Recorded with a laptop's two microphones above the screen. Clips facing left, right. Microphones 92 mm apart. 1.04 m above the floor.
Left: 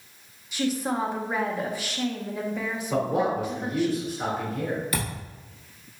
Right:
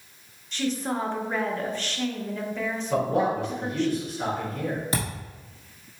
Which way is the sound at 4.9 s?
30° right (ahead or behind).